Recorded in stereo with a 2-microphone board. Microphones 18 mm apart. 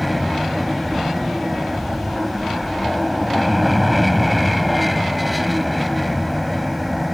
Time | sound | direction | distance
0.0 | an aircraft | centre (ahead or behind) | ?